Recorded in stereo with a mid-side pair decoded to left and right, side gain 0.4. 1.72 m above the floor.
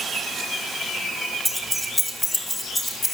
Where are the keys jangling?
10° left, 2 m; by 3.1 s 50° left, 3 m.